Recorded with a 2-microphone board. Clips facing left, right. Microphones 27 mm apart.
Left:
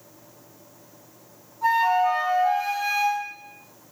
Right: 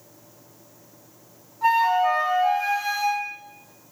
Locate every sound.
1.6 s a flute: 50° right (ahead or behind), 1.2 m